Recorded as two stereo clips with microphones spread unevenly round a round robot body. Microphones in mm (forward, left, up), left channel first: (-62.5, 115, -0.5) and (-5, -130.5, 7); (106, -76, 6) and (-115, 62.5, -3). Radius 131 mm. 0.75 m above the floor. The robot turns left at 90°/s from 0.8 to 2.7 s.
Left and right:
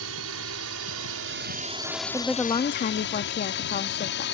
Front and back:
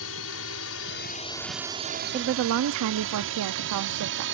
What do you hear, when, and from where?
0.0 s a drone: 55° right; by 4.3 s 125° left
2.1 s a woman speaking: 150° right; by 4.2 s 155° left